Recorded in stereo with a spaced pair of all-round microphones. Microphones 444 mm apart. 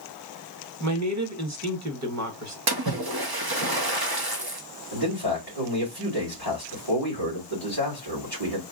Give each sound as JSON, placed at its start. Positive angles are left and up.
{"t": 0.8, "sound": "a man speaking", "side_deg": -35, "distance_m": 1.3}
{"t": 2.7, "sound": "a splash", "side_deg": -55, "distance_m": 0.9}
{"t": 4.9, "sound": "a man speaking", "side_deg": -60, "distance_m": 3.0}